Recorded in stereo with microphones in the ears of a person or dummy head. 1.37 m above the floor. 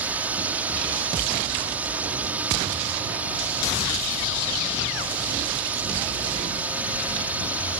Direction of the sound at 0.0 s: 5° right (ahead or behind).